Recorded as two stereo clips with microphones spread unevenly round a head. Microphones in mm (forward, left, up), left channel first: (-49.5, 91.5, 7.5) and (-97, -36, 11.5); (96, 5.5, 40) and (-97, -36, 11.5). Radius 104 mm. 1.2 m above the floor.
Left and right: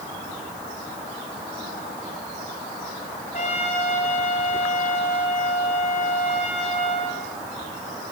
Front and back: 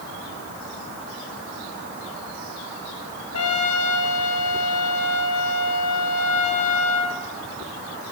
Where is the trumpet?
10° left, 4 m.